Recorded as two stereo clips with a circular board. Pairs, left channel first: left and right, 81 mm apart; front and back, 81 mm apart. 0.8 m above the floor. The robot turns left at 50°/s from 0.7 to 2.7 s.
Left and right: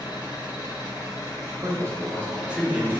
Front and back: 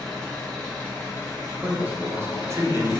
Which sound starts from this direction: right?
A man speaking, at 1.6 s.